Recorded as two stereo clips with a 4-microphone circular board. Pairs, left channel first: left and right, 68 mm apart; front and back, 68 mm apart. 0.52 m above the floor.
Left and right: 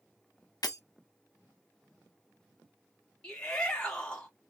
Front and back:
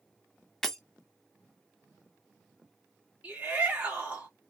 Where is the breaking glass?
80° left, 0.8 m.